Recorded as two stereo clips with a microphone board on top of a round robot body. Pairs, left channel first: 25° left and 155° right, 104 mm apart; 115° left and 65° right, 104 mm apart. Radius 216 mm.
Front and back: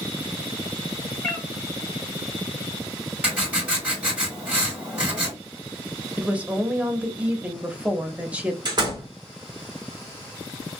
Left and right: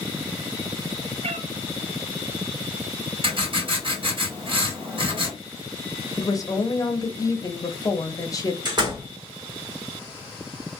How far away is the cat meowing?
About 0.6 m.